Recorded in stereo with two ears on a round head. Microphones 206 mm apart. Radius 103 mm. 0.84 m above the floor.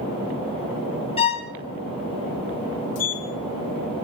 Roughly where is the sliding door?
Left.